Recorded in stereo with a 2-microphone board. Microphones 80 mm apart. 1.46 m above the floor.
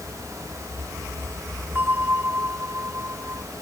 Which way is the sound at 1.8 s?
30° right (ahead or behind).